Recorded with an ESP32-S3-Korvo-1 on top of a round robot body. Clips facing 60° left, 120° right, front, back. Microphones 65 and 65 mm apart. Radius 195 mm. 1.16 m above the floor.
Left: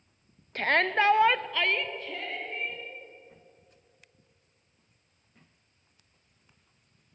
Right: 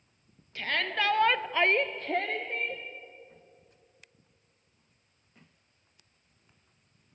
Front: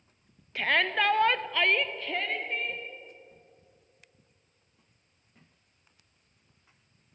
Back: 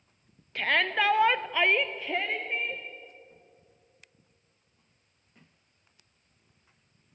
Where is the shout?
90° left, 0.8 m; by 2.8 s 100° right, 1.2 m.